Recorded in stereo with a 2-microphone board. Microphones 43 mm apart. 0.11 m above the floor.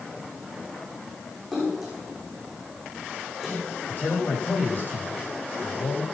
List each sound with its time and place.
1.5 s a splash: centre (ahead or behind), 8 m
3.9 s a man speaking: 50° left (ahead or behind), 5.5 m